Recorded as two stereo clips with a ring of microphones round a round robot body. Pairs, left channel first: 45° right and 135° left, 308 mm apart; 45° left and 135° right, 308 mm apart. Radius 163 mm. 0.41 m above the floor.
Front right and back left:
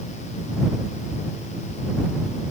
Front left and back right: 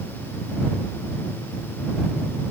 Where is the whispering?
I don't hear whispering.